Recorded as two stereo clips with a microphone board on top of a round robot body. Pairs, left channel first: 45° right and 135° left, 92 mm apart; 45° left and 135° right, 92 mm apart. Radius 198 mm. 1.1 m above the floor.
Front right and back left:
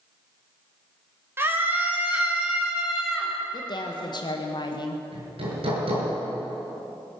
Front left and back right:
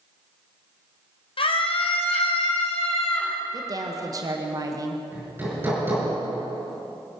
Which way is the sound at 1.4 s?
65° left.